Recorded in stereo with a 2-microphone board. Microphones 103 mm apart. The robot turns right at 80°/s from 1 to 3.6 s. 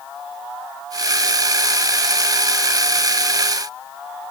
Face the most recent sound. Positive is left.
No sound to turn to.